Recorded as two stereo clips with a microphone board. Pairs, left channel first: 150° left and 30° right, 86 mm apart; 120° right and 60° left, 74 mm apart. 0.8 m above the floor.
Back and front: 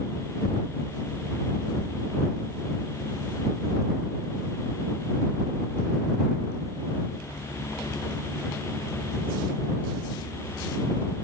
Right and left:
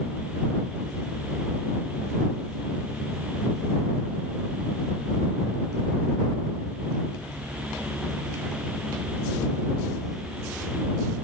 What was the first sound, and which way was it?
Only background noise.